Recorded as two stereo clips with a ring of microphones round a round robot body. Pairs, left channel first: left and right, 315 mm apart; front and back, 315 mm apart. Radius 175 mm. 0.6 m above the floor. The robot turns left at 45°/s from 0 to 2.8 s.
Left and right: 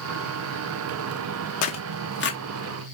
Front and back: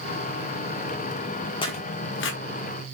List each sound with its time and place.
1.6 s tearing paper: 70° left, 0.9 m; by 2.4 s 35° left, 0.9 m